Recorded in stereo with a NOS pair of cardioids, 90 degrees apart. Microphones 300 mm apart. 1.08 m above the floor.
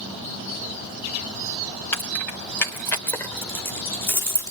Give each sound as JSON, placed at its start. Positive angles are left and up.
{"t": 1.9, "sound": "keys jangling", "azimuth_deg": 5, "distance_m": 4.5}